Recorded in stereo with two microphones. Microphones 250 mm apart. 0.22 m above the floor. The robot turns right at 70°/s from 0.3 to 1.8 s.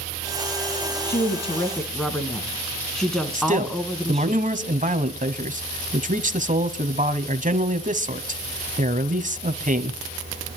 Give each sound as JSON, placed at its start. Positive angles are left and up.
{"t": 1.1, "sound": "a woman speaking", "azimuth_deg": 125, "distance_m": 2.5}
{"t": 3.4, "sound": "a man speaking", "side_deg": -30, "distance_m": 1.3}